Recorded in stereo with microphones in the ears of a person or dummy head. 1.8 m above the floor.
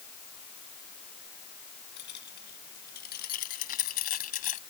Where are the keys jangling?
50° left (ahead or behind); by 4.6 s 40° left (ahead or behind).